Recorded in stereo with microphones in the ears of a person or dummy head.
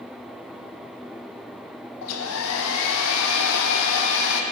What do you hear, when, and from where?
2.0 s a hair dryer: 75° left (ahead or behind), 0.7 m